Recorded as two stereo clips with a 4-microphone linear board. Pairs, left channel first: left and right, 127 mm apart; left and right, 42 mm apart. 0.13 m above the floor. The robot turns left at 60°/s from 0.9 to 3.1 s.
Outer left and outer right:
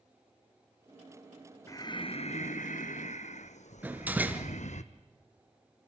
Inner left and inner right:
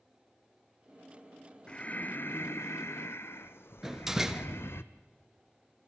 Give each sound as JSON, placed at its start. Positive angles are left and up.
{"t": 1.7, "sound": "breathing", "azimuth_deg": 155, "distance_m": 1.0}
{"t": 3.8, "sound": "a door slam", "side_deg": -15, "distance_m": 1.5}